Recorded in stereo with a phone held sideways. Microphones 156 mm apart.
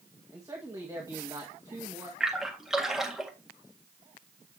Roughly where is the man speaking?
Right.